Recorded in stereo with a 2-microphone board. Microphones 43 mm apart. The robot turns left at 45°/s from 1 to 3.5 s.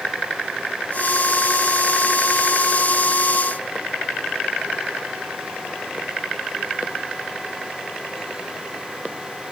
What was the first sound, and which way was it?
Only background noise.